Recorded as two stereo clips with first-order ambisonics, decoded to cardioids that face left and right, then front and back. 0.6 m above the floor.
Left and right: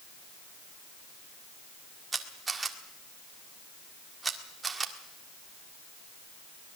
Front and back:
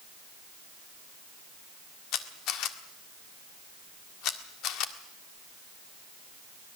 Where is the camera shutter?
15° right, 1.7 m.